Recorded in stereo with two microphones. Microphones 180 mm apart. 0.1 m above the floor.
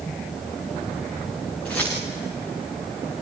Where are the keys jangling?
10° left (ahead or behind), 7 m.